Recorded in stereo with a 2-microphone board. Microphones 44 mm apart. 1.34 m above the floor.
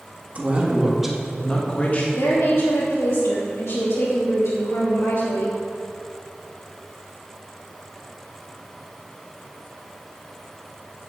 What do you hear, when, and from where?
0.3 s a man speaking: 30° right (ahead or behind), 2 m; by 2.0 s 40° left (ahead or behind), 1.9 m
2.1 s a woman speaking: 85° left, 2.5 m